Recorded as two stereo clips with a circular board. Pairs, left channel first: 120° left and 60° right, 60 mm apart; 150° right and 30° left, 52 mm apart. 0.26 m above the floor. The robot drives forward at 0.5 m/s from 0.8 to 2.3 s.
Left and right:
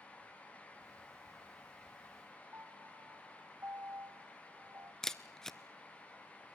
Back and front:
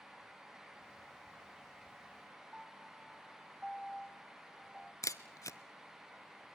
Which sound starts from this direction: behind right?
A camera shutter, at 5.0 s.